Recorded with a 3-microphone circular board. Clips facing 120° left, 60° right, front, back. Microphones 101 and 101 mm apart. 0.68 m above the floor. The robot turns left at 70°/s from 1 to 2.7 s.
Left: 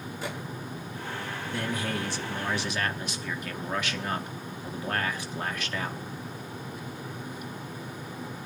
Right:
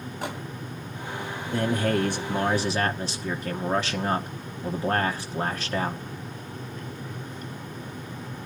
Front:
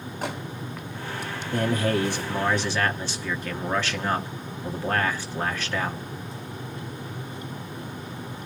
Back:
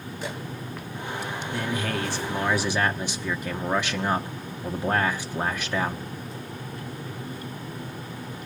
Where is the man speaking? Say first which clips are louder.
Right 8 dB, front 6 dB; 25° right, 1.1 m; by 6.0 s 110° right, 1.1 m.